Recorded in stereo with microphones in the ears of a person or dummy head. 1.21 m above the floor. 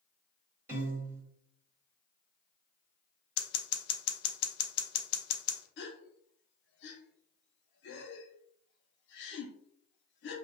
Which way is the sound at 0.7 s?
15° right (ahead or behind).